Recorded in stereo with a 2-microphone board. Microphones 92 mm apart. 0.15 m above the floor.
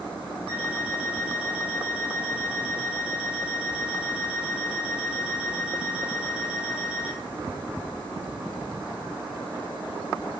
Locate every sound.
0.5 s an alarm clock: 80° left, 3 m